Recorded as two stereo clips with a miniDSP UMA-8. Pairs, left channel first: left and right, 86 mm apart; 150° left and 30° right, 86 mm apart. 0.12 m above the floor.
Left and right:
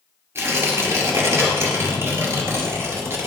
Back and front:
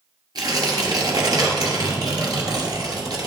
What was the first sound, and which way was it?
Tearing paper, 40° right.